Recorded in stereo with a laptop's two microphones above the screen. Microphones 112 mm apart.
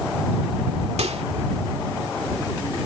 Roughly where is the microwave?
Right.